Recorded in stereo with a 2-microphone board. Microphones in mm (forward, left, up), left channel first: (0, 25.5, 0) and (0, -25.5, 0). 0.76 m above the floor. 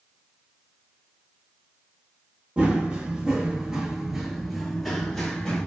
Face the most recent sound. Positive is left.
turn(degrees=10)  # may be behind; listen again after turning